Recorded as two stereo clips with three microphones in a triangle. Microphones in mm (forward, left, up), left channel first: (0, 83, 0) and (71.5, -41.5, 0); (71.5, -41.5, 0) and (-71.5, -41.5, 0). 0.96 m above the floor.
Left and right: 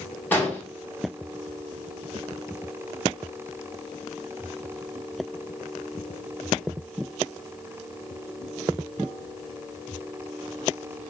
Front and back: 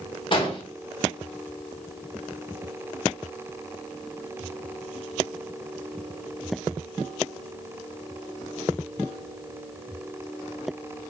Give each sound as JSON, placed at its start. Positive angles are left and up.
{"t": 0.3, "sound": "an explosion", "azimuth_deg": 45, "distance_m": 0.8}